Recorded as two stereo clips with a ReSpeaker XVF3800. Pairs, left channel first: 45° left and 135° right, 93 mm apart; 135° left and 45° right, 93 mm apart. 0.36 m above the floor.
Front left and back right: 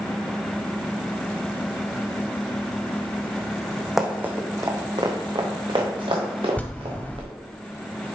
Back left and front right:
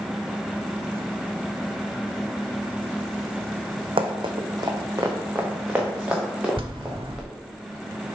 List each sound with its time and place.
4.0 s running footsteps: 50° right, 1.1 m; by 7.3 s 130° right, 3.5 m
6.6 s a bell: 25° right, 0.7 m